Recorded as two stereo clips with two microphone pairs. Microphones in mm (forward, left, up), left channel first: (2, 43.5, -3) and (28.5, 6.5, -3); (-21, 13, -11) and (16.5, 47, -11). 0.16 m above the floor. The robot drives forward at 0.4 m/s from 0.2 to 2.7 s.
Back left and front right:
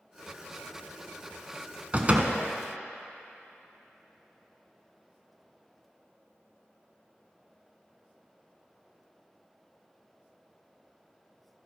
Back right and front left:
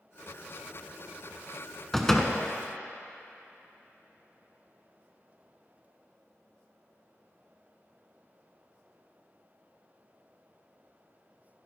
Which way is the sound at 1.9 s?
55° right.